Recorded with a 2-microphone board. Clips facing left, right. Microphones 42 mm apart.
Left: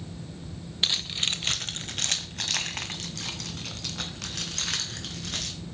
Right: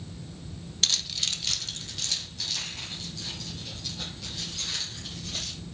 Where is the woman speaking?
No woman speaking in this recording.